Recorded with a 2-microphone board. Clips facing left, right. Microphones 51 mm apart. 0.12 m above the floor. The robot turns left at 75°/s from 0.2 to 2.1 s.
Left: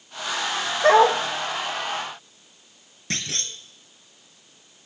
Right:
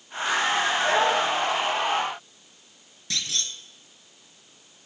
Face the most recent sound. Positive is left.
turn(degrees=40)  # may be behind; listen again after turning